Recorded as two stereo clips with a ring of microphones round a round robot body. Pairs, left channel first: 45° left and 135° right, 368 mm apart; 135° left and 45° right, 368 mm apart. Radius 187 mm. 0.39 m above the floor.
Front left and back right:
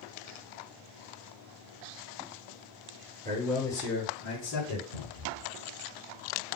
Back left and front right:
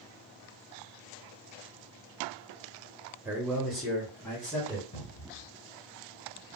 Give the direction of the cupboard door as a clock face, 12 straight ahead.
5 o'clock.